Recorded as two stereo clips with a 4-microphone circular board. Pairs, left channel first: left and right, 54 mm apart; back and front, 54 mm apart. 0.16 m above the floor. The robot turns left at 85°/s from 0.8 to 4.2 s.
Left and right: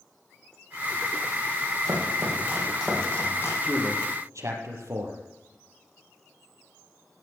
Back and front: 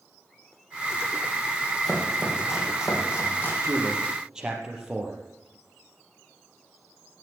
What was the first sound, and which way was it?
Chopping, 95° right.